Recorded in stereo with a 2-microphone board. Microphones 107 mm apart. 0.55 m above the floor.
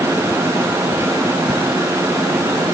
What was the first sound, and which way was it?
Only background noise.